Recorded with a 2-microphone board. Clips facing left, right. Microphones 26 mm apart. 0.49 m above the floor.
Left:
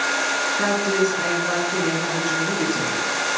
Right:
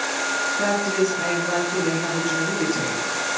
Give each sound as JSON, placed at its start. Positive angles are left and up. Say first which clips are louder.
{"t": 0.6, "sound": "a woman speaking", "louder": "left 1 dB", "side_deg": 25, "distance_m": 6.0}